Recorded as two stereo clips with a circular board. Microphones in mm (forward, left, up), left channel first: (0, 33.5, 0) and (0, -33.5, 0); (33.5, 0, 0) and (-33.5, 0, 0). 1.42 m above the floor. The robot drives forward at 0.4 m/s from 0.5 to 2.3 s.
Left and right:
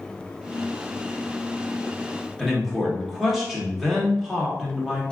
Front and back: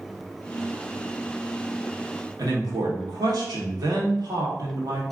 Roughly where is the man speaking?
Behind.